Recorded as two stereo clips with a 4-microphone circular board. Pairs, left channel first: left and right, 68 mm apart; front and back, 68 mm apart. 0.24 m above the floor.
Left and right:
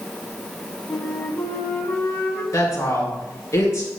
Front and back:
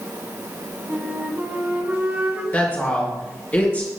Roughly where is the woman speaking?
Ahead left.